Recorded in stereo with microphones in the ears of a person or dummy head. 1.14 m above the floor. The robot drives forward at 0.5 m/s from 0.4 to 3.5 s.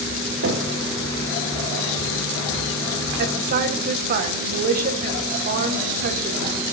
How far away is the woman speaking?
About 1.2 m.